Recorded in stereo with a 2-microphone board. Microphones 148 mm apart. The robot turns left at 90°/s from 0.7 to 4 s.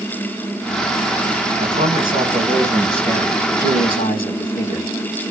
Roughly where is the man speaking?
Ahead right.